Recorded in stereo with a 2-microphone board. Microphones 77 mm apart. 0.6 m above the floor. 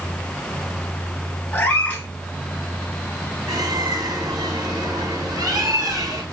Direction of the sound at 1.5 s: 20° left (ahead or behind).